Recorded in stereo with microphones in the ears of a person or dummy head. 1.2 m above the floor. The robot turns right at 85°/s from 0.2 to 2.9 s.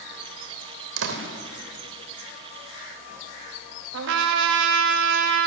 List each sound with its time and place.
1.0 s a door slam: 80° right, 3 m; by 1.2 s 75° right (ahead or behind), 3 m
3.9 s a trumpet: 65° right (ahead or behind), 1.7 m